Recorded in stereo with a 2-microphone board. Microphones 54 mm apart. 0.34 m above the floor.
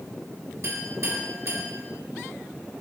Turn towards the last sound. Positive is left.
turn(degrees=-65)  # may be behind; listen again after turning